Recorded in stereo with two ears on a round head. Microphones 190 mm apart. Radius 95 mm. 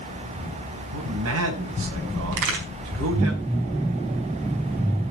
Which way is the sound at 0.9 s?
75° right (ahead or behind).